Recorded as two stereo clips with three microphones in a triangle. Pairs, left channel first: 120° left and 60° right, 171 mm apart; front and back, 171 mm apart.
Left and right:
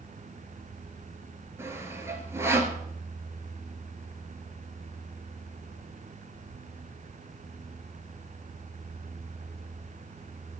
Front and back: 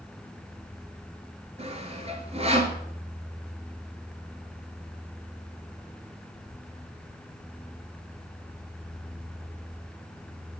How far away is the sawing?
About 1.5 m.